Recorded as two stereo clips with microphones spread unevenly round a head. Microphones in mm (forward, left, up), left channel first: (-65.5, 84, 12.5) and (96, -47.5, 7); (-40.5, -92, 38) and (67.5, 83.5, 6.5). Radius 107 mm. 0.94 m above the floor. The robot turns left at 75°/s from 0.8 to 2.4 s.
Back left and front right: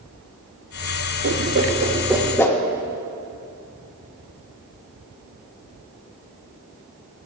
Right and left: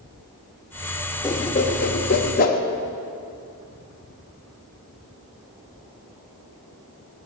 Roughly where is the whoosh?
Ahead right.